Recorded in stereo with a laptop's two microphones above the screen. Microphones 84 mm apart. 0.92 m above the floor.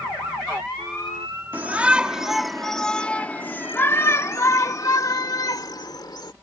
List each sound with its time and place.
1.5 s a shout: 20° right (ahead or behind); by 6.3 s 55° left (ahead or behind)